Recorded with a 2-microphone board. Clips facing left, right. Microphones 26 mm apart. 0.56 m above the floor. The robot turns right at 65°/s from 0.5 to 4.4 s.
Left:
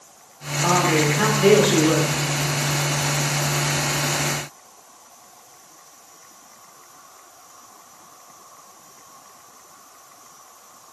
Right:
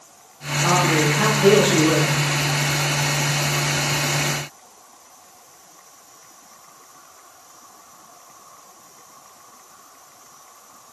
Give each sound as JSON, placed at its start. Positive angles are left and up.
{"t": 0.6, "sound": "a man speaking", "azimuth_deg": 55, "distance_m": 1.1}